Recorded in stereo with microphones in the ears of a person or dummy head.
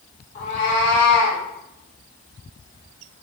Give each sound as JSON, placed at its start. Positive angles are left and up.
{"t": 0.3, "sound": "a cat meowing", "side_deg": 35, "distance_m": 1.1}